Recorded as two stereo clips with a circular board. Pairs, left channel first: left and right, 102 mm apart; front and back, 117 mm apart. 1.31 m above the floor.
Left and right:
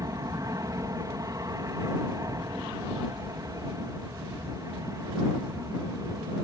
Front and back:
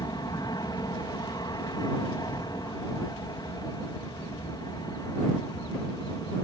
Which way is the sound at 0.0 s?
45° right.